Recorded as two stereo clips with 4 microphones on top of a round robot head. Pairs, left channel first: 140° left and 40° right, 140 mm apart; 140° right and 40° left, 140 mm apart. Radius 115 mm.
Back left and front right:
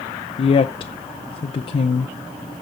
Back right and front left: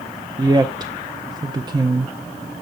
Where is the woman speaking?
95° left, 0.6 m.